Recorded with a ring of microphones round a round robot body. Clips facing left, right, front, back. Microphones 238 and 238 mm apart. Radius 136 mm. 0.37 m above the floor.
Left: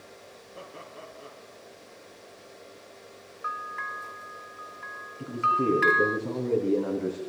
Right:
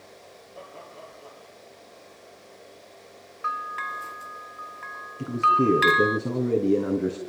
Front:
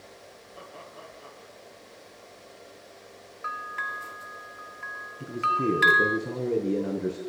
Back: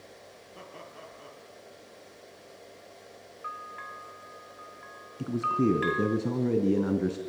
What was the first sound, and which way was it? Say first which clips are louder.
Laughter: even, front 1 dB; 155° left.